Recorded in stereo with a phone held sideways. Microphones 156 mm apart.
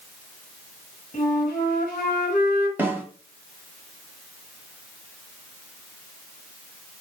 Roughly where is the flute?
Left.